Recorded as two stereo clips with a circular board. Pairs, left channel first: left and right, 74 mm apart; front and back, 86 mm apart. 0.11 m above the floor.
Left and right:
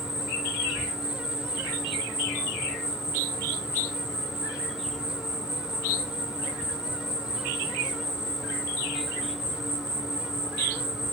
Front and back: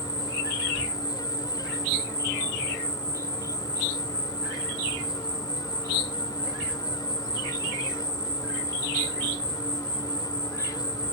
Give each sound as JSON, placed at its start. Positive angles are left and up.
{"t": 0.0, "sound": "an insect", "azimuth_deg": -5, "distance_m": 2.0}